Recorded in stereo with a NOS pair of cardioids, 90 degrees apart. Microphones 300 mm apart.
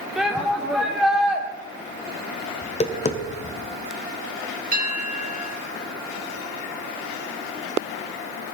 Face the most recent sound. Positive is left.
turn(degrees=-30)